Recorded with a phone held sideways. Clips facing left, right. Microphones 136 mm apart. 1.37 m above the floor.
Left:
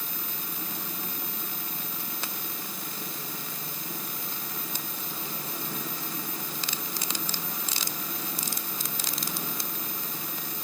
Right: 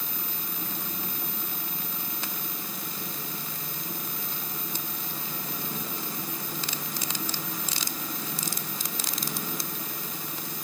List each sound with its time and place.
Only background noise.